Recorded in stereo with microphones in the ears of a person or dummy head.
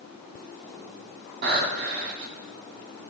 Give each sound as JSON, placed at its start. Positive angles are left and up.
{"t": 1.4, "sound": "breathing", "side_deg": -60, "distance_m": 2.5}